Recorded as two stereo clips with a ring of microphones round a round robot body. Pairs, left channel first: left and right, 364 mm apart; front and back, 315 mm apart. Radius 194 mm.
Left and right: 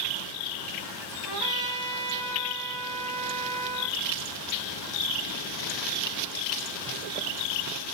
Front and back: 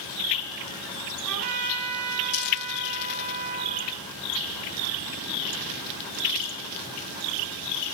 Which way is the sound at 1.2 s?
120° right.